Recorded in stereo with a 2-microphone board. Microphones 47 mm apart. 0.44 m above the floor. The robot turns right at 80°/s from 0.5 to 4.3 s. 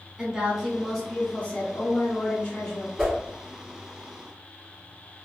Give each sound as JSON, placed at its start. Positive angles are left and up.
{"t": 0.2, "sound": "a woman speaking", "azimuth_deg": -20, "distance_m": 1.1}
{"t": 3.0, "sound": "a whoosh", "side_deg": -10, "distance_m": 1.2}